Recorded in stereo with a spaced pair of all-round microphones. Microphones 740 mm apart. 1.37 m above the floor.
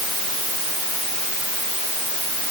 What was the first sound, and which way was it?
Only background noise.